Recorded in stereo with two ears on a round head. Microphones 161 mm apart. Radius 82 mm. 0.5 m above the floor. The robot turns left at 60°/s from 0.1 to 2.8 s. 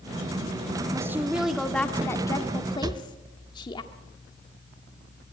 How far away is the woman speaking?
About 1.3 m.